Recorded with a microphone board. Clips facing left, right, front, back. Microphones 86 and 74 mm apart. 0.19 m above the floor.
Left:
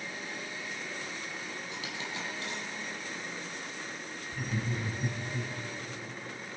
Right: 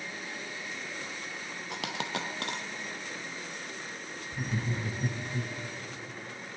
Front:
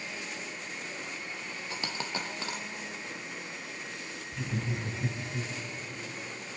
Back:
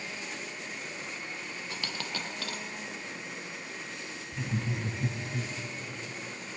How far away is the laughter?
About 1.2 m.